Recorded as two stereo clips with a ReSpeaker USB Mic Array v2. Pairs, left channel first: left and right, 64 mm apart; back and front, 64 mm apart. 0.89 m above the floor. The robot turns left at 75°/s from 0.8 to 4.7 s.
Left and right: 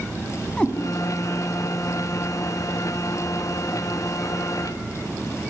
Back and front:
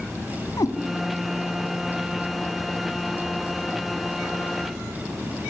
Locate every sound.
0.6 s a cat meowing: 165° left, 3 m